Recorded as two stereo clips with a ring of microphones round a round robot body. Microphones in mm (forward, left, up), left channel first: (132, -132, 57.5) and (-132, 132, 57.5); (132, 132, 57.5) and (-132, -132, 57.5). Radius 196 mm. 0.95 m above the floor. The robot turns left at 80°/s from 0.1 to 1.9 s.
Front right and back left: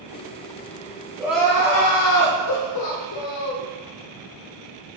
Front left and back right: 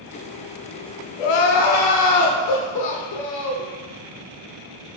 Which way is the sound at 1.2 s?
55° left.